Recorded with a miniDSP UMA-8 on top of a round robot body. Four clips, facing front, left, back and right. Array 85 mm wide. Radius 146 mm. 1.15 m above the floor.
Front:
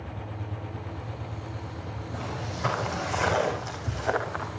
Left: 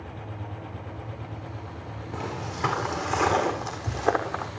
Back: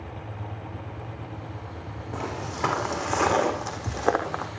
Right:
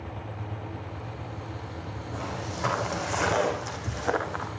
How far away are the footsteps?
About 5 m.